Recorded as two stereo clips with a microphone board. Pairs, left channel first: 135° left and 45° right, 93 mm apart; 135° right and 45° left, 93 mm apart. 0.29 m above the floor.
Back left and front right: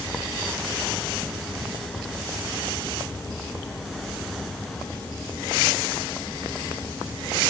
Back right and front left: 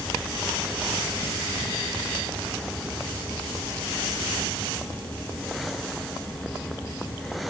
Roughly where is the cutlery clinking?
No cutlery clinking in this recording.